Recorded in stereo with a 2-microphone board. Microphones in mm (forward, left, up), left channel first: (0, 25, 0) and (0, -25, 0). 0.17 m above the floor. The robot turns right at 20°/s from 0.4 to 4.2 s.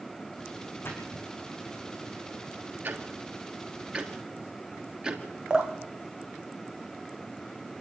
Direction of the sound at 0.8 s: 50° left (ahead or behind).